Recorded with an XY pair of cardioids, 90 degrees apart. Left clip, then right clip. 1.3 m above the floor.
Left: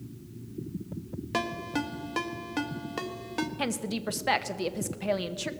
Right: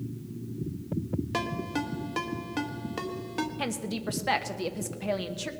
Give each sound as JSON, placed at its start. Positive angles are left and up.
{"t": 1.3, "sound": "a ringtone", "azimuth_deg": 20, "distance_m": 1.3}
{"t": 3.6, "sound": "a woman speaking", "azimuth_deg": 20, "distance_m": 0.9}